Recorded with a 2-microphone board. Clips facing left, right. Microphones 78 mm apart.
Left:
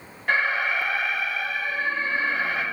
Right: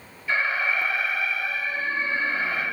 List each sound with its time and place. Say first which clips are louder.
0.3 s an alarm: left 2 dB; 70° left (ahead or behind), 6 m